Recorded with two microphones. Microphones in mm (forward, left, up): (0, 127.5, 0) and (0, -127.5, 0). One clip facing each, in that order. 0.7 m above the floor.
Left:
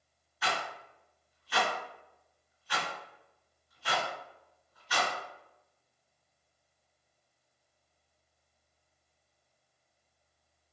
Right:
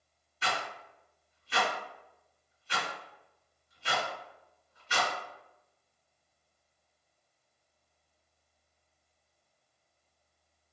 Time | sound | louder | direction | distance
0.4 | a rattle | even | 30° right (ahead or behind) | 1.9 m